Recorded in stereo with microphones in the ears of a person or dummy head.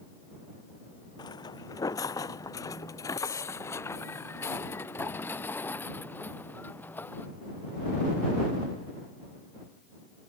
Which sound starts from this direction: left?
Footsteps, at 1.2 s.